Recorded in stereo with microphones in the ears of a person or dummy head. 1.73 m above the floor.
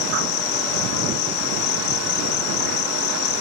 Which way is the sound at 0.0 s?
55° left (ahead or behind).